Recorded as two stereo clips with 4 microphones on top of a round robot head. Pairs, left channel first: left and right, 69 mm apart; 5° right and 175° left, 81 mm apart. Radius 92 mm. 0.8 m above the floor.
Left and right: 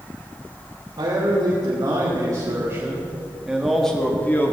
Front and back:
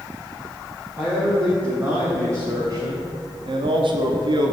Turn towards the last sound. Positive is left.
turn(degrees=150)